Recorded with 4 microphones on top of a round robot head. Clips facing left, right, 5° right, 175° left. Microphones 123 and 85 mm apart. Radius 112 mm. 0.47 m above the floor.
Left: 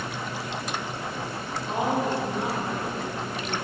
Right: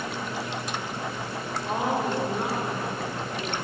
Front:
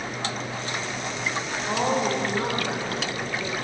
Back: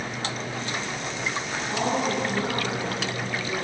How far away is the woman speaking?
About 2.5 m.